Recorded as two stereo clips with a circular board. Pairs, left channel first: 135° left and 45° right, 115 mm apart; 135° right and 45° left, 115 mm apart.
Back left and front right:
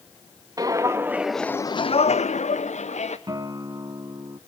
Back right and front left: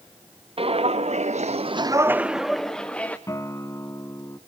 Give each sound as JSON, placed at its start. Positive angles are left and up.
{"t": 0.6, "sound": "footsteps", "azimuth_deg": 15, "distance_m": 1.2}
{"t": 3.3, "sound": "a guitar", "azimuth_deg": -85, "distance_m": 0.8}